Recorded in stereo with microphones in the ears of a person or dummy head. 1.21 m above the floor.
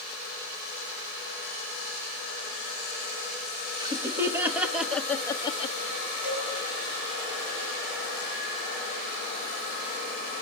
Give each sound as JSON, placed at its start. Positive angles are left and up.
{"t": 3.8, "sound": "laughter", "side_deg": -20, "distance_m": 1.8}
{"t": 6.2, "sound": "a cowbell", "side_deg": -55, "distance_m": 8.0}